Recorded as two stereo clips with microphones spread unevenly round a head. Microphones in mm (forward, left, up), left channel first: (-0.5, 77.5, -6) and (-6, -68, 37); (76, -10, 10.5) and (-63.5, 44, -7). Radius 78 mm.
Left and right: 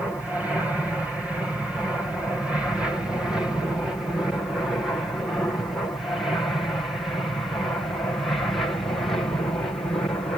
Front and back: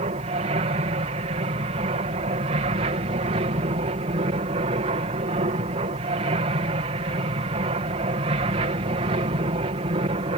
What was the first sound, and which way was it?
An aircraft, 170° left.